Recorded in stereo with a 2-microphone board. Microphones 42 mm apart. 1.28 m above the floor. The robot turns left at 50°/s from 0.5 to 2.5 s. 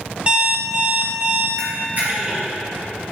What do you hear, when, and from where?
0.3 s an alarm clock: 40° right, 1.0 m; by 1.5 s 90° right, 1.0 m
1.6 s a camera shutter: 60° right (ahead or behind), 1.9 m; by 3.1 s 15° right (ahead or behind), 1.9 m